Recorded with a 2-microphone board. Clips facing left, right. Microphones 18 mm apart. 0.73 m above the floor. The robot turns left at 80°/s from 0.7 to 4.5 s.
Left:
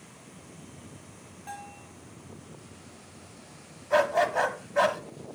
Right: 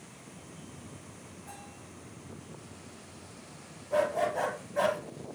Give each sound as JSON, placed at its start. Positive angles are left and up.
{"t": 1.5, "sound": "a bell", "azimuth_deg": 100, "distance_m": 4.0}
{"t": 3.9, "sound": "a dog barking", "azimuth_deg": 90, "distance_m": 1.2}